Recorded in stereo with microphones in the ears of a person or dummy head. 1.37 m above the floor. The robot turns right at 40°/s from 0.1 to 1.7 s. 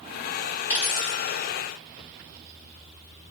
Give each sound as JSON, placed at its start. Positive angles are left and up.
{"t": 0.7, "sound": "a dropped coin", "side_deg": 40, "distance_m": 1.2}